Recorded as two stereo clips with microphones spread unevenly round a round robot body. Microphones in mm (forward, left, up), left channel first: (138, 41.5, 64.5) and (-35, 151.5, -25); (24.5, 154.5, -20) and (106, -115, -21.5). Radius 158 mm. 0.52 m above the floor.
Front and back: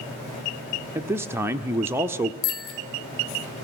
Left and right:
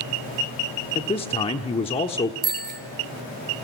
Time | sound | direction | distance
0.9 | a man speaking | 165° left | 1.0 m
2.4 | a bicycle bell | 15° right | 6 m